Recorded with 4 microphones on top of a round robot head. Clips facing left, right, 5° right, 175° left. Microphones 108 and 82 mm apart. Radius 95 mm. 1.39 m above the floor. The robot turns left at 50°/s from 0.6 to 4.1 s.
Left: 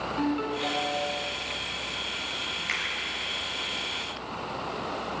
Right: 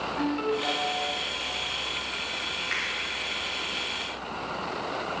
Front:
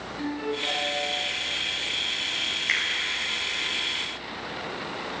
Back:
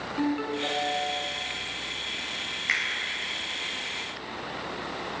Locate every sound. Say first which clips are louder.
0.2 s a ringtone: right 1 dB, back 2 dB; 160° left, 8.5 m; by 1.2 s 130° left, 8.5 m
2.7 s a finger snap: even, even; 95° left, 9 m; by 2.8 s 85° left, 9 m